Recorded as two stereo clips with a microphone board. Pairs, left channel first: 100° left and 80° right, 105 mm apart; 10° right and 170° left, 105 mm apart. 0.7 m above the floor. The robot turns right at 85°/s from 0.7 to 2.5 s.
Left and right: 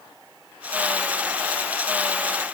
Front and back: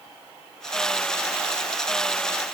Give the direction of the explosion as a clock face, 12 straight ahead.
I don't hear an explosion.